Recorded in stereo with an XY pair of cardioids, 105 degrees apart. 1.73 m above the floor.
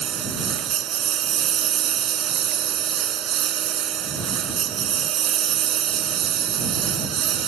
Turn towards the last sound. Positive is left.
turn(degrees=-65)